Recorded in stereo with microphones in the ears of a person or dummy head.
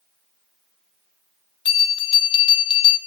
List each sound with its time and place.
1.6 s a bell: 30° left (ahead or behind), 1.7 m